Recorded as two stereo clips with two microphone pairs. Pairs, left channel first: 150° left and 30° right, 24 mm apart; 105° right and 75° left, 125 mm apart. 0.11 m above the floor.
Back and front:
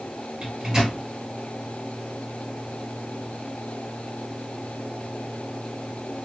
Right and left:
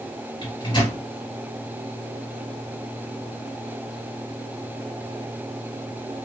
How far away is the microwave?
About 1.7 m.